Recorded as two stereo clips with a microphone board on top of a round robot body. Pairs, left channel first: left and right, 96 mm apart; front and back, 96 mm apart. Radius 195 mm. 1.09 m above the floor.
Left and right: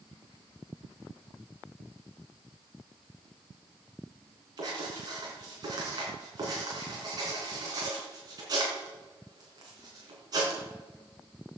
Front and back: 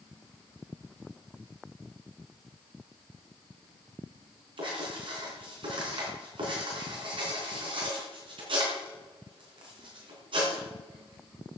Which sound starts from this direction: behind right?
Writing, at 4.6 s.